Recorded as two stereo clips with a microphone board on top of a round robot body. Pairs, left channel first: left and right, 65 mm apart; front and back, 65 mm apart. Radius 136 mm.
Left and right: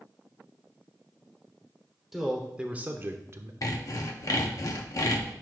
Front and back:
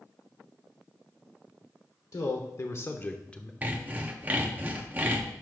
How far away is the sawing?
About 0.8 m.